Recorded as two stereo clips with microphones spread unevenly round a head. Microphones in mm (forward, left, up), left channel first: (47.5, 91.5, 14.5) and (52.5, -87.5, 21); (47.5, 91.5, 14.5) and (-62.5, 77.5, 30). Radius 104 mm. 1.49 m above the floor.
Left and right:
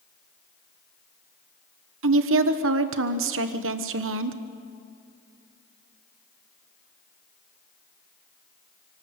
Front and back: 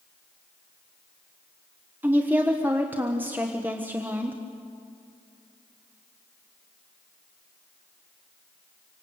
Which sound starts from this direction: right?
A woman speaking, at 2.0 s.